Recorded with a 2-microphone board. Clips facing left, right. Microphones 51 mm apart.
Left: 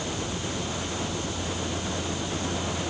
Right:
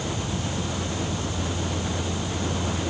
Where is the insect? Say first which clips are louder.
Right 2 dB; 30° right (ahead or behind).